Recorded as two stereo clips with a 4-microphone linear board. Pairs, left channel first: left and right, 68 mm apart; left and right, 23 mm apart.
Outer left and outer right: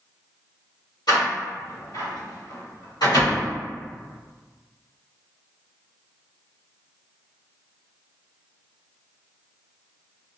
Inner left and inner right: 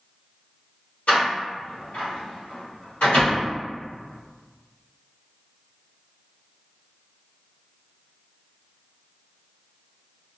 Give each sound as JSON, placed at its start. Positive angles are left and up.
{"t": 1.1, "sound": "a door slam", "side_deg": 80, "distance_m": 1.7}